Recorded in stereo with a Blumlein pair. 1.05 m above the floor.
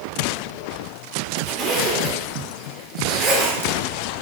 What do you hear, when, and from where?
1.5 s a zipper: 30° right, 1.5 m